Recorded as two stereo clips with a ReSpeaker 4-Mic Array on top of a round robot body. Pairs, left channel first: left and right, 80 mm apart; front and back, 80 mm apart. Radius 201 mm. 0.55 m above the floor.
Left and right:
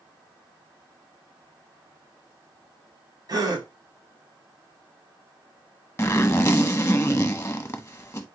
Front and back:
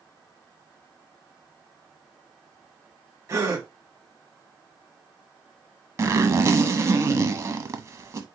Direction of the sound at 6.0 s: 140° left.